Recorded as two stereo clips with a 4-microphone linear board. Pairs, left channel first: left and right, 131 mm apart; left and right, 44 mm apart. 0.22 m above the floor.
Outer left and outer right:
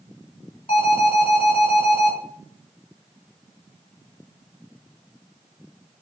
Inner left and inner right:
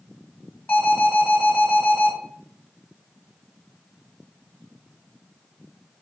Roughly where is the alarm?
Left.